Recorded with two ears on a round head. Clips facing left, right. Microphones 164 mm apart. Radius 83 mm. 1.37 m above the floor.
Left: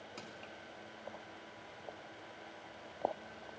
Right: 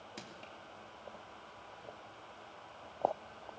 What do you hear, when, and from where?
0.2 s crushing: 10° right (ahead or behind), 3 m